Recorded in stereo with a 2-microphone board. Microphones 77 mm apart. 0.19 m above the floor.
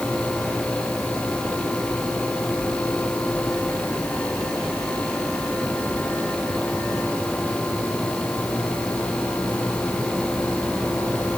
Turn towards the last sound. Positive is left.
No sound to turn to.